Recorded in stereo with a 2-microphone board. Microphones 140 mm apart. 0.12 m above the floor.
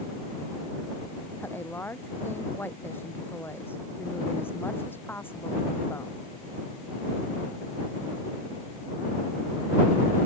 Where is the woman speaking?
15° left (ahead or behind).